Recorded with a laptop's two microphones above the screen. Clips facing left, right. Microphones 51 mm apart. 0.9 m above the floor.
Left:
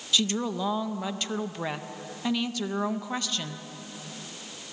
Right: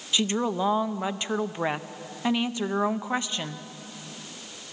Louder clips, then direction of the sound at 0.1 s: Right 2 dB; 20° right (ahead or behind).